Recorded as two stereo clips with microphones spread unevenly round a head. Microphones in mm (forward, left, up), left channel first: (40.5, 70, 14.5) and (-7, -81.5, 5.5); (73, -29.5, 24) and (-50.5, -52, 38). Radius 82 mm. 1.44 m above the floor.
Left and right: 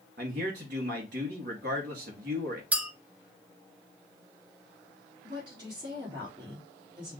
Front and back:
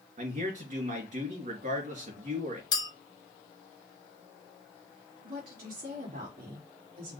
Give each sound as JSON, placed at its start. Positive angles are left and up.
{"t": 0.2, "sound": "a man speaking", "azimuth_deg": -150, "distance_m": 2.5}
{"t": 2.7, "sound": "a clink", "azimuth_deg": -30, "distance_m": 0.7}
{"t": 5.2, "sound": "a woman speaking", "azimuth_deg": -175, "distance_m": 2.5}